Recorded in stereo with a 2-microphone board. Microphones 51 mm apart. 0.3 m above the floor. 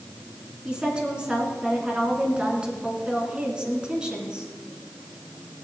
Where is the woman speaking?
20° right (ahead or behind), 2.5 m.